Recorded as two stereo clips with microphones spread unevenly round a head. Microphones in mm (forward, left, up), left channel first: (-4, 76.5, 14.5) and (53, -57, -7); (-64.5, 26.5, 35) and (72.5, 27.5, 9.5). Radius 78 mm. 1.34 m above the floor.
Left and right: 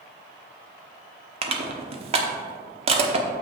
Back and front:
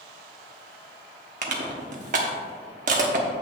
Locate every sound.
1.4 s crushing: 30° right, 1.0 m